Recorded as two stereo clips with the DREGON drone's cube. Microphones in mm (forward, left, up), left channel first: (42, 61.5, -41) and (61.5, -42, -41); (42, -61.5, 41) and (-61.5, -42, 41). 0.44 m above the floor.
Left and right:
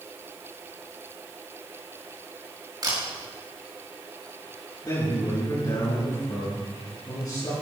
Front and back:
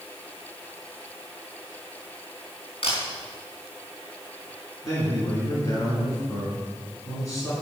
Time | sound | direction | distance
2.8 | a camera shutter | 25° right | 4.5 m
4.8 | a man speaking | 50° left | 5.5 m